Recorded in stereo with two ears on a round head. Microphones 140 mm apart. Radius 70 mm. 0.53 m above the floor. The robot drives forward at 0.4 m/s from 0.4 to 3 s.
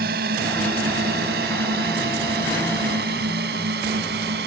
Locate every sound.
0.0 s a drone: 70° right (ahead or behind); by 4.5 s 75° right (ahead or behind)